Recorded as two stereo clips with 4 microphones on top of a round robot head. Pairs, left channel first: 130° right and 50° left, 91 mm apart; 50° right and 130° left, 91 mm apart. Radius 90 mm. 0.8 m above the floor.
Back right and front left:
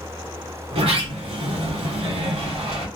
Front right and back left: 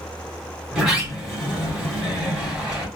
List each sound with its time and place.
0.7 s a sliding door: 50° left, 3.5 m